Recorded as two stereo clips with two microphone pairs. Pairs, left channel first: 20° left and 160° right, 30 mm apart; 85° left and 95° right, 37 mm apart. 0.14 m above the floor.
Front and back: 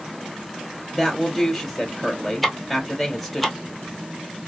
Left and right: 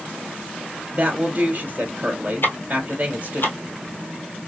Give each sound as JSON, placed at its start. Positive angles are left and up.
{"t": 0.9, "sound": "a woman speaking", "azimuth_deg": -65, "distance_m": 2.0}
{"t": 2.4, "sound": "ticking", "azimuth_deg": 115, "distance_m": 1.3}